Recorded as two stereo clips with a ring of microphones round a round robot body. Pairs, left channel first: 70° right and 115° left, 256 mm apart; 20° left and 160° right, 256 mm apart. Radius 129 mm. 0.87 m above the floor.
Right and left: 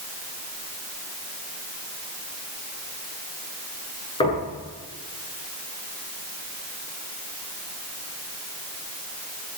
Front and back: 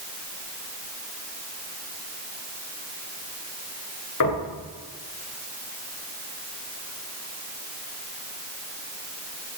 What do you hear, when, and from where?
4.2 s knocking: 5° left, 9 m